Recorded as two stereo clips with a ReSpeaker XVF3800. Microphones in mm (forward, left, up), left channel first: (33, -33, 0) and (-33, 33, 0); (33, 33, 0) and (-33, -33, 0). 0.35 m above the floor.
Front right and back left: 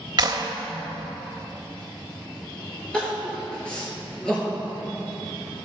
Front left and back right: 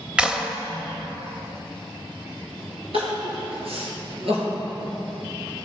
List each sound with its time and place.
0.2 s a clap: 150° left, 1.0 m
2.9 s crying: 125° right, 3 m